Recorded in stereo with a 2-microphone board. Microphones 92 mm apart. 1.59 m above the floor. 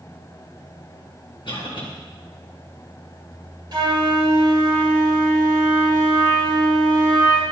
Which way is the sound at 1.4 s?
60° left (ahead or behind).